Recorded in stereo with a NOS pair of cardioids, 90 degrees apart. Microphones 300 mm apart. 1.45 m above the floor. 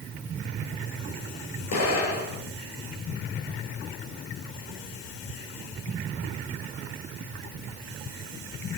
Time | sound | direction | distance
1.7 | an explosion | 55° left | 6.5 m